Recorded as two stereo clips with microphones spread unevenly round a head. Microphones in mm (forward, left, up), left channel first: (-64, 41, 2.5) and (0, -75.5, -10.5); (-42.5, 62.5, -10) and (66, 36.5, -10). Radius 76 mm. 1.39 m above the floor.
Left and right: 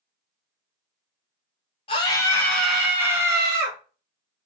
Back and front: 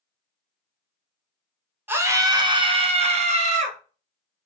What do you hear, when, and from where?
1.9 s a scream: 60° left, 0.9 m; by 3.8 s straight ahead, 1.4 m